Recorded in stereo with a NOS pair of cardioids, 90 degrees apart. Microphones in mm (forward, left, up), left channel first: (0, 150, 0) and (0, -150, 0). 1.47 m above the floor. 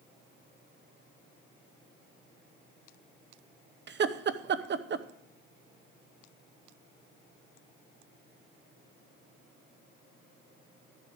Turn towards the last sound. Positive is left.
turn(degrees=-40)